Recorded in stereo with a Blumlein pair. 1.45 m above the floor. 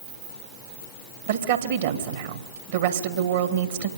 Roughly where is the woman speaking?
Ahead right.